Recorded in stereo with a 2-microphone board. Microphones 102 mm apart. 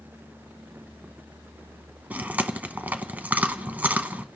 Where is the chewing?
15° right (ahead or behind), 0.8 m.